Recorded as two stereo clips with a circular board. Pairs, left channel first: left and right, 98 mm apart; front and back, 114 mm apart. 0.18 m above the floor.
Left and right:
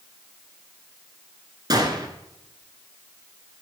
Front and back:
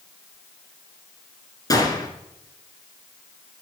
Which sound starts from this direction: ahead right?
A gunshot, at 1.7 s.